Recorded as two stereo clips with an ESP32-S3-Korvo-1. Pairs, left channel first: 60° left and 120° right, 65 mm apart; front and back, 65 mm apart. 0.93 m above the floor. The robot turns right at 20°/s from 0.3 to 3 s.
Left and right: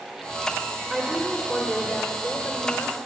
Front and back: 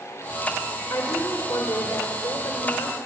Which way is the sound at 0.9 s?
35° right.